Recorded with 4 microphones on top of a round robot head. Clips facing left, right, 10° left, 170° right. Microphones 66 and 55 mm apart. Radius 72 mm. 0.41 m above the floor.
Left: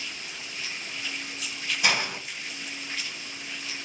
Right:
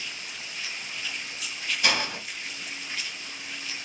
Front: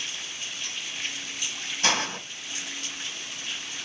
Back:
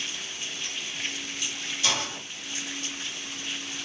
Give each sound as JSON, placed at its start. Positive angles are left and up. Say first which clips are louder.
{"t": 1.8, "sound": "a hiss", "louder": "left 1 dB, front 4 dB", "azimuth_deg": 15, "distance_m": 1.7}